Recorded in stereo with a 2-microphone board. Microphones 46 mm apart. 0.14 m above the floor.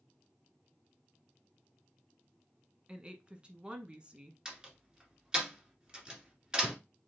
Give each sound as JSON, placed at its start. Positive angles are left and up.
{"t": 2.9, "sound": "a woman speaking", "side_deg": -25, "distance_m": 1.1}
{"t": 4.5, "sound": "a door slam", "side_deg": -20, "distance_m": 1.7}